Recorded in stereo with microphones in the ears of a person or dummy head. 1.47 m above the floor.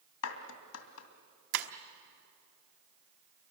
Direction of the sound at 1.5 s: 60° right (ahead or behind).